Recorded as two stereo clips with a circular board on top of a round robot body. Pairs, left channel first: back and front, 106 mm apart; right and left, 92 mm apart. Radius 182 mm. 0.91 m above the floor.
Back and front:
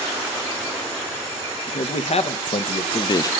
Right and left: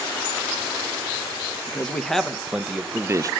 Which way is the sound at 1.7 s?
170° right.